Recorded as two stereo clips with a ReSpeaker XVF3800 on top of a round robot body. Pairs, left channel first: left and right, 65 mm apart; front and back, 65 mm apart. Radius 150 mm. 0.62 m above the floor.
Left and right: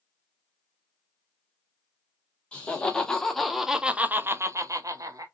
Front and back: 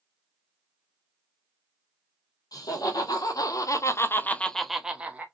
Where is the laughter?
15° left, 1.5 m; by 5.2 s 115° right, 1.0 m.